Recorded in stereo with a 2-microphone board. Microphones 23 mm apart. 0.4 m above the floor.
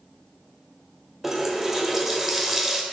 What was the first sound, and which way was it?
A running tap, 15° right (ahead or behind).